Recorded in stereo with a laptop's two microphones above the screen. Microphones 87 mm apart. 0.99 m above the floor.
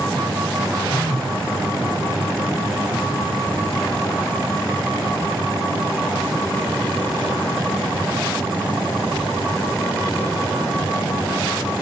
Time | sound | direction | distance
0.9 | a phone buzzing | 55° right (ahead or behind) | 1.3 m